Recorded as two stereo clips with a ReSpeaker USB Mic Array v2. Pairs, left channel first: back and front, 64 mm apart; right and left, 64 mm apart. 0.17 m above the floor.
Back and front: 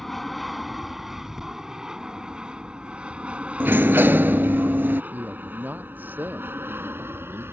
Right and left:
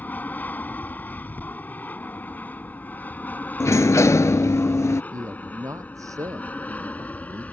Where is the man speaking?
60° left.